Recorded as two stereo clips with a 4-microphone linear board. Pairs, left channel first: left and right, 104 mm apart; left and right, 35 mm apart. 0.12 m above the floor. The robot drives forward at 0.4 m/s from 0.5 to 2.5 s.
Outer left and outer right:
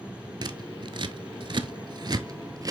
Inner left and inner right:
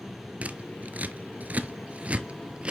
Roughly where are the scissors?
Right.